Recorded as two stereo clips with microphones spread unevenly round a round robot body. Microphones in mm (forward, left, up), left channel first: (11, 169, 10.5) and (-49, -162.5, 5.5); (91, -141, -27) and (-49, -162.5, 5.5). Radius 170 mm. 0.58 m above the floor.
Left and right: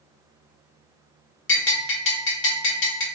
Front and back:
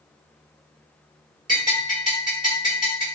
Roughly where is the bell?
Behind left.